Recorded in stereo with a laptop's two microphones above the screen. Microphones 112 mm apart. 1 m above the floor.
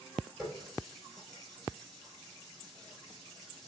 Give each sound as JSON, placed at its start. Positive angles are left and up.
{"t": 0.4, "sound": "a running tap", "side_deg": 0, "distance_m": 3.0}